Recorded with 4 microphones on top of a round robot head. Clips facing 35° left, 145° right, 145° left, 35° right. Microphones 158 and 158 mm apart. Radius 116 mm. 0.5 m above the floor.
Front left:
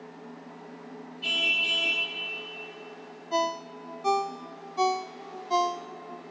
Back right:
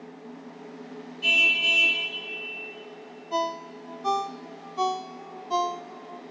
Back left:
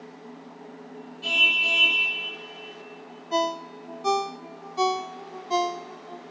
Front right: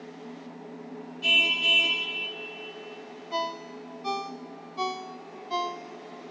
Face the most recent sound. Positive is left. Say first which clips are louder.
# even, back left 7 dB
turn(degrees=115)